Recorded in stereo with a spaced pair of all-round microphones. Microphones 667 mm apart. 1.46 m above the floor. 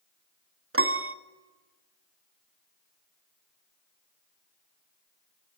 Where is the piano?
20° right (ahead or behind), 0.9 m.